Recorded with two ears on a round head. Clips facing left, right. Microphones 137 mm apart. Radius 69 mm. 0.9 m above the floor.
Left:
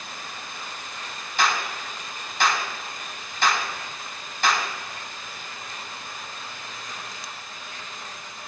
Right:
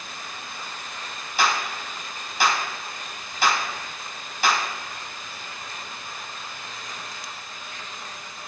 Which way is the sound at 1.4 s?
5° right (ahead or behind).